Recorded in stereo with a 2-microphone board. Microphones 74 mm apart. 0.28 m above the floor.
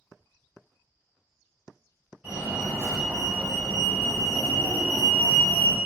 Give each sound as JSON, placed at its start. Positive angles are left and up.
{"t": 2.2, "sound": "a fire alarm", "side_deg": -20, "distance_m": 2.0}